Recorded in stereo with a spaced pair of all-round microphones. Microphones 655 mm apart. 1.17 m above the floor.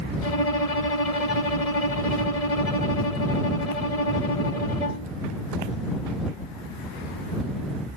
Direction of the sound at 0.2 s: 60° left (ahead or behind).